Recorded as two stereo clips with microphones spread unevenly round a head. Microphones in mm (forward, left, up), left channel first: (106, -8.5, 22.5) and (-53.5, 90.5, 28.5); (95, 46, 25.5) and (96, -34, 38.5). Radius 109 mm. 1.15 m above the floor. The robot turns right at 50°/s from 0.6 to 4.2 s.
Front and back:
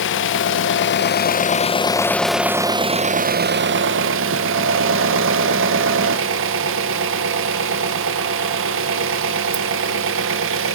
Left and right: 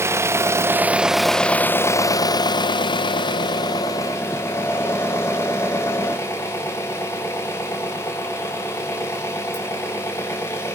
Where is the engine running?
25° right, 0.8 m; by 10.8 s 155° left, 0.8 m.